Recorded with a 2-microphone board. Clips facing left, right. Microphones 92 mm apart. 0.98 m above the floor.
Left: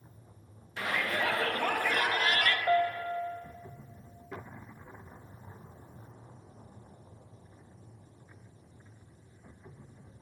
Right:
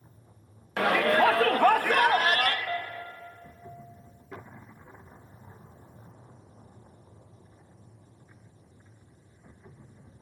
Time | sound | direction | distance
0.8 | a shout | 70° right (ahead or behind) | 1.1 m
2.7 | a piano | 30° left (ahead or behind) | 1.6 m